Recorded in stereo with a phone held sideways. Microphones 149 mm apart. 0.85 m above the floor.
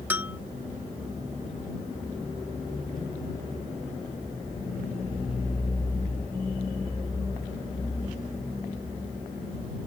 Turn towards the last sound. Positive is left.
turn(degrees=-10)  # may be behind; listen again after turning